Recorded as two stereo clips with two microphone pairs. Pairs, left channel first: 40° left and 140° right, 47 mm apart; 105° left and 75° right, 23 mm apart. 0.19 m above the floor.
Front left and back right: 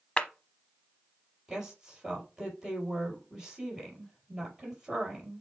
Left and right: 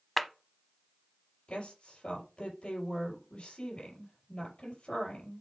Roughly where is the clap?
Ahead left.